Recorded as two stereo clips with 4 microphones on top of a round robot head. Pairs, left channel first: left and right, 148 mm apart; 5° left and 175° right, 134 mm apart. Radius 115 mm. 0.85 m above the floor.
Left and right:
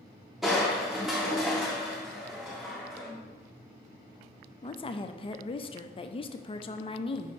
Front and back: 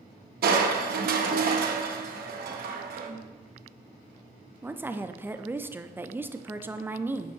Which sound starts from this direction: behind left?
A woman speaking, at 4.6 s.